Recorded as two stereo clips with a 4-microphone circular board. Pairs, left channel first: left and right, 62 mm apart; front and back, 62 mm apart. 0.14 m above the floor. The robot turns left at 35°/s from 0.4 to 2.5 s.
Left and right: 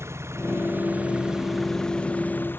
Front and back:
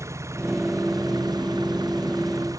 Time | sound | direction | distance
0.0 | an engine running | 140° right | ?